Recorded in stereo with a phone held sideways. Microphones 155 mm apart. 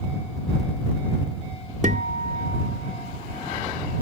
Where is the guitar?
55° right (ahead or behind).